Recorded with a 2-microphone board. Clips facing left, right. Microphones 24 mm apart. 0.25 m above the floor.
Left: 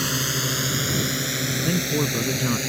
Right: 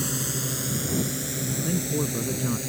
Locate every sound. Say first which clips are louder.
0.0 s a drone: left 5 dB; 45° left (ahead or behind); by 2.7 s 50° left (ahead or behind)
1.6 s a man speaking: left 3 dB; 35° left (ahead or behind)